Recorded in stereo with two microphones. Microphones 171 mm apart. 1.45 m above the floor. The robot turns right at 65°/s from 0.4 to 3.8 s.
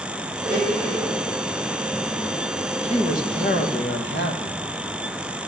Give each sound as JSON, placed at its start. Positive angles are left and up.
{"t": 0.4, "sound": "a blender", "azimuth_deg": -120, "distance_m": 5.5}
{"t": 2.8, "sound": "a man speaking", "azimuth_deg": 30, "distance_m": 1.3}